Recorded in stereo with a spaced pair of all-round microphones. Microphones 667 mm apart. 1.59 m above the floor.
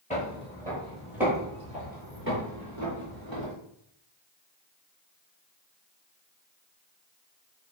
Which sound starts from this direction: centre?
Footsteps, at 0.1 s.